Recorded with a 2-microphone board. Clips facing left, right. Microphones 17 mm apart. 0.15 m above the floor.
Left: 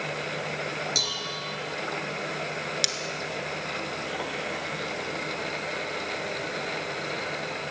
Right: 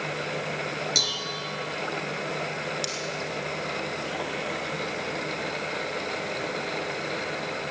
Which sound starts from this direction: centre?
Dishes clattering, at 0.9 s.